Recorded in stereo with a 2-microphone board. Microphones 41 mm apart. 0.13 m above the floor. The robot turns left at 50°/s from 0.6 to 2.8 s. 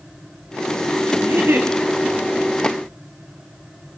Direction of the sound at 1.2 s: 70° right (ahead or behind).